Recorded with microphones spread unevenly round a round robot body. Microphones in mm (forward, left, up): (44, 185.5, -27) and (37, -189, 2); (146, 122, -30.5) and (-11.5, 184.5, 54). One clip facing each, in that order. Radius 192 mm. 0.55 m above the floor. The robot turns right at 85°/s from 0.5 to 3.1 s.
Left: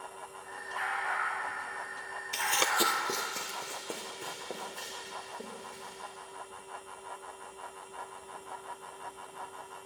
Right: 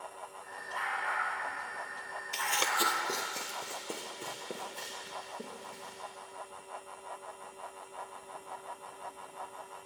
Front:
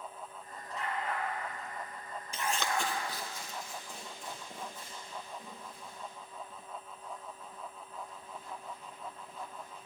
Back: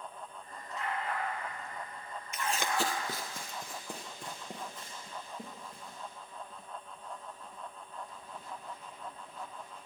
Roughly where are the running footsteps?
Ahead left.